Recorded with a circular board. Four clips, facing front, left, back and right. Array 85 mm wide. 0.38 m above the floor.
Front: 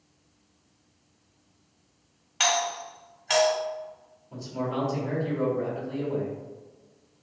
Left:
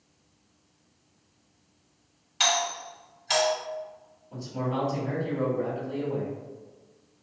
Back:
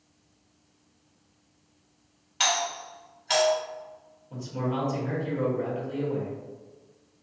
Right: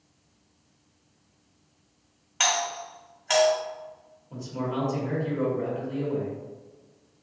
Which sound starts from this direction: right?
A doorbell, at 2.4 s.